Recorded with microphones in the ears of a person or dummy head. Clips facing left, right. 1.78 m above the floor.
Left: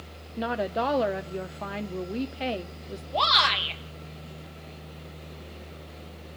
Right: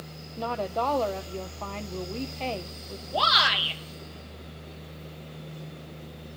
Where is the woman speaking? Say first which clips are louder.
Left 1 dB; 15° left (ahead or behind), 0.6 m.